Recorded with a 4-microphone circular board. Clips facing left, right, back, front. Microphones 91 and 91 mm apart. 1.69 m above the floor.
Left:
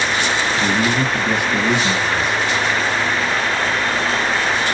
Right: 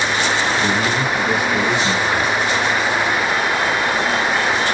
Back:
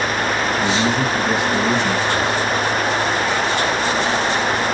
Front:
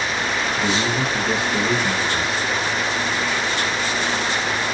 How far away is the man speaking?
About 1.7 m.